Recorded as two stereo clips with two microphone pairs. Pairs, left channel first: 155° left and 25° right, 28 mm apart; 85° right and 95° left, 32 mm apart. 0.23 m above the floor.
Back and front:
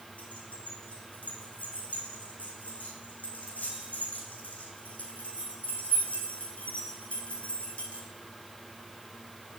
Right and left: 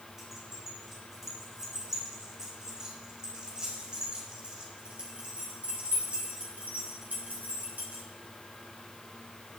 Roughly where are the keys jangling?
Behind.